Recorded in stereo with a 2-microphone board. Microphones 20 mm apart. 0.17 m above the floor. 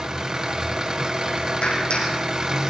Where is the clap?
70° left (ahead or behind), 7.5 m.